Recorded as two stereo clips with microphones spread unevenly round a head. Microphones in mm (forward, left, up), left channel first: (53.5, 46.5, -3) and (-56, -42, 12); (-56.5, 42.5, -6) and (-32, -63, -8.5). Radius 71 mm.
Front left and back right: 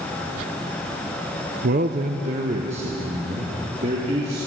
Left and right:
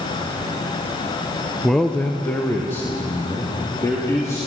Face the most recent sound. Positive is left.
turn(degrees=165)